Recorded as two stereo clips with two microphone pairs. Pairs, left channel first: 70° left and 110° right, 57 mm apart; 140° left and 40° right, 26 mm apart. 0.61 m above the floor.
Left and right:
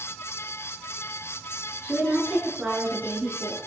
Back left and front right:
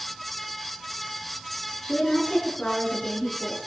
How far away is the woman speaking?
About 7.5 m.